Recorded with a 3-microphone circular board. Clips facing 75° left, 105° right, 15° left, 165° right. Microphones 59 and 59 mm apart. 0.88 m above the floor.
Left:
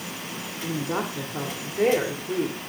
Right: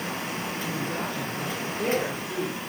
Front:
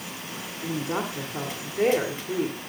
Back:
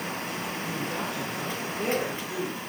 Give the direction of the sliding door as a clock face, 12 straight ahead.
I don't hear a sliding door.